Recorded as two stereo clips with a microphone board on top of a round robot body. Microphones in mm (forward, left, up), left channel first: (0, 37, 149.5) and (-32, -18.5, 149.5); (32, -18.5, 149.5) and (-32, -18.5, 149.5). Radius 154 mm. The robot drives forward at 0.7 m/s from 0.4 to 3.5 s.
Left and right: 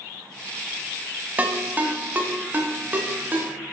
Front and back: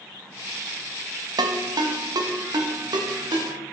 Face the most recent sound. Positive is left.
turn(degrees=180)